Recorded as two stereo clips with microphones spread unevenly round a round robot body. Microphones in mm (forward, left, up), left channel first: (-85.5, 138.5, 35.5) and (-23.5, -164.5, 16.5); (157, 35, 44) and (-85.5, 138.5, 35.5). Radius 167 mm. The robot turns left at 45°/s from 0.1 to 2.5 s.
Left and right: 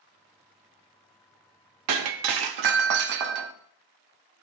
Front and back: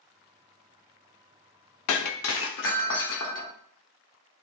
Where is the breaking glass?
45° right, 0.6 m; by 3.5 s 75° right, 0.6 m.